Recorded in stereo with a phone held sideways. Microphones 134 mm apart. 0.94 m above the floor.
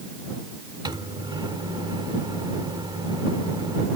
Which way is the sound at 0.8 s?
35° right (ahead or behind).